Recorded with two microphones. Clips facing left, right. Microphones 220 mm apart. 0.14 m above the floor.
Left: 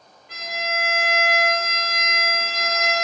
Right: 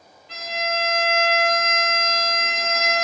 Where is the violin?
60° left (ahead or behind), 3 m.